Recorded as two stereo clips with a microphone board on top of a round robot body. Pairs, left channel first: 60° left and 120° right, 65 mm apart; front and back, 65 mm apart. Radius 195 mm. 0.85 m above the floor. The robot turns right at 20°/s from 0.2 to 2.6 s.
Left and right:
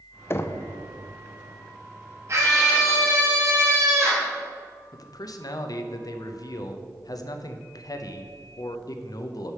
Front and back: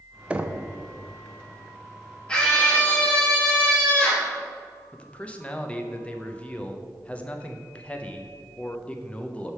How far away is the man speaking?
About 0.6 m.